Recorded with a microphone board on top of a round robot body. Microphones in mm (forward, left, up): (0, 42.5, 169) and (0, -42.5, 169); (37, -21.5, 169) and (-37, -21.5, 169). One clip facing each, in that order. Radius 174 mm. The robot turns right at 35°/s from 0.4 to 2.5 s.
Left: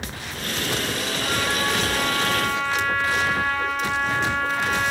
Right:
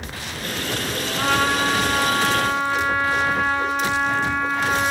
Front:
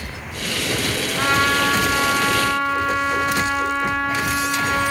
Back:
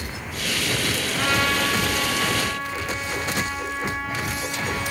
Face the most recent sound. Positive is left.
turn(degrees=-20)